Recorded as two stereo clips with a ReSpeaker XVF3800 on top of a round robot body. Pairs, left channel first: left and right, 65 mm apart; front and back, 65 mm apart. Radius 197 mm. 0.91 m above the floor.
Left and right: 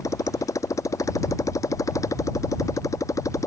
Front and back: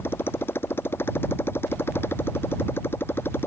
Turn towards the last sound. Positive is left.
turn(degrees=55)